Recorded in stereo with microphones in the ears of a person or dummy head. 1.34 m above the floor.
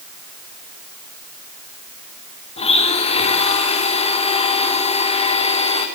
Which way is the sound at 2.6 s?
35° left (ahead or behind).